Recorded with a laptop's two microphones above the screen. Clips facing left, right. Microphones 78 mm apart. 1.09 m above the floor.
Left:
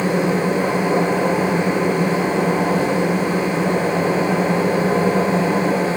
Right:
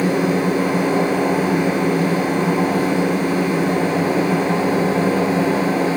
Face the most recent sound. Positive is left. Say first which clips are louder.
# right 1 dB
turn(degrees=30)  # may be behind; listen again after turning